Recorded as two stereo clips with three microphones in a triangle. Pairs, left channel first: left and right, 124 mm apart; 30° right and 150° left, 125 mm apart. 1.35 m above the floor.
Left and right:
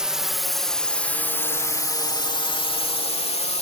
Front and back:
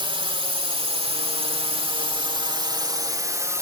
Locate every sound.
0.0 s a drone: 175° right; by 3.6 s 90° left